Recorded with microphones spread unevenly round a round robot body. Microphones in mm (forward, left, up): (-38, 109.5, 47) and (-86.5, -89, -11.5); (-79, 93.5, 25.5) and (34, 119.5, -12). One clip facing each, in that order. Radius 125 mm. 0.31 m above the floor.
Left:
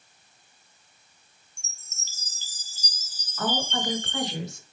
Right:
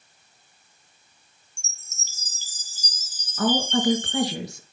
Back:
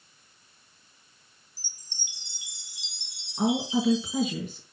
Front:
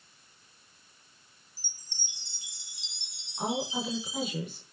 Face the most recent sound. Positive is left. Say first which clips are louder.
# right 7 dB, back 7 dB
turn(degrees=-150)